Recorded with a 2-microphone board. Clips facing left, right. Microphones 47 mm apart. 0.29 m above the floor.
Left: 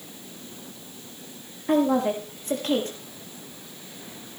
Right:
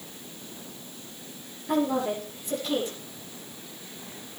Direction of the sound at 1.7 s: 60° left (ahead or behind).